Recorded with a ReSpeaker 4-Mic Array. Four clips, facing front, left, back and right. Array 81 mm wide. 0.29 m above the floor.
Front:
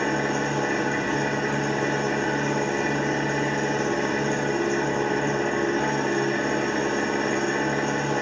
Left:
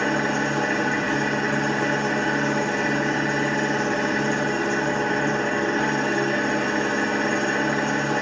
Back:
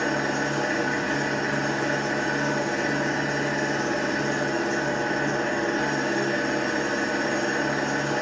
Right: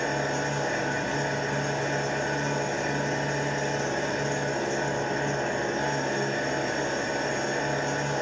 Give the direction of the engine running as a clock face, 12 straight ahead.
8 o'clock.